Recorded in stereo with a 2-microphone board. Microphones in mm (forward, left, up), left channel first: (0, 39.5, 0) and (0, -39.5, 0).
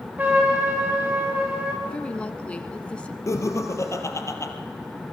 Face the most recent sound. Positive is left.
turn(degrees=40)  # may be behind; listen again after turning